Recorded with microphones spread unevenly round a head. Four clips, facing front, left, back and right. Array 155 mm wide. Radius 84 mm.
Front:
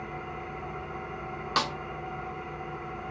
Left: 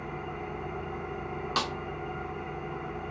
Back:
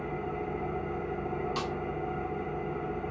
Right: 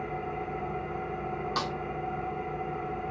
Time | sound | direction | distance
0.0 | an engine running | 165° right | 5.5 m
1.6 | a snare drum | 15° left | 0.8 m